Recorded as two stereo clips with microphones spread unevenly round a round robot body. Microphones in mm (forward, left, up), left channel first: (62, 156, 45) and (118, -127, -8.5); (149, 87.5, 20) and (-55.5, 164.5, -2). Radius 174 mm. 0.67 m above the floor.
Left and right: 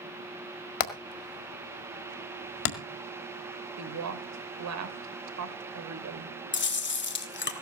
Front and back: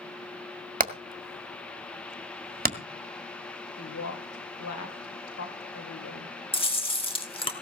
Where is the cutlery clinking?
I don't hear cutlery clinking.